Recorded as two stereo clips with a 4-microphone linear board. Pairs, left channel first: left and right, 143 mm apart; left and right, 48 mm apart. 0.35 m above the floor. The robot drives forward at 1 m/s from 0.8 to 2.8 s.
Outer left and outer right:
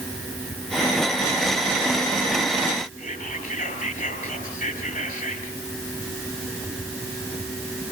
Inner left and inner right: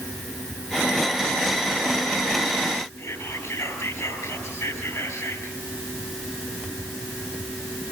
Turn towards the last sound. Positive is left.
turn(degrees=80)